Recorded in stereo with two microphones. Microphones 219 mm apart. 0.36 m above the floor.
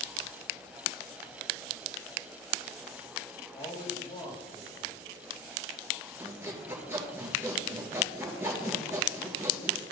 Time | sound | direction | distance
3.5 | a man speaking | 25° left (ahead or behind) | 3 m
6.2 | sawing | 10° right (ahead or behind) | 3 m